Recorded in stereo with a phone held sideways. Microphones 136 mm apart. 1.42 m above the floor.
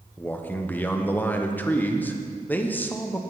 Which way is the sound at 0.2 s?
15° left (ahead or behind).